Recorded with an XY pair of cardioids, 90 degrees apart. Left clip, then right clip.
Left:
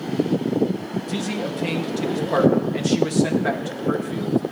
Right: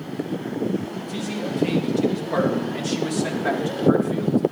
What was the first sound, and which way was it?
A man speaking, 50° left.